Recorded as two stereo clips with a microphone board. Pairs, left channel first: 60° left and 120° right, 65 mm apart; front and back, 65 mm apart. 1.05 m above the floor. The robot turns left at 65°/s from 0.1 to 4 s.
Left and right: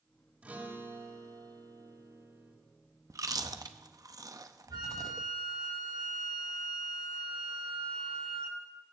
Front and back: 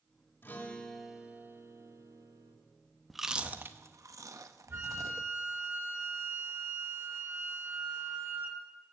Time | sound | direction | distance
0.4 | a guitar | 55° right | 3 m
3.1 | chewing | 85° right | 0.8 m
4.7 | a flute | 125° right | 7 m